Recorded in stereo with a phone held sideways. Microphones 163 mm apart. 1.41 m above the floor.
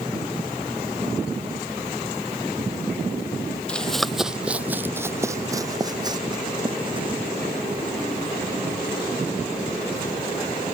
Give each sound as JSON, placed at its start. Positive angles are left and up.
{"t": 3.7, "sound": "running footsteps", "side_deg": 5}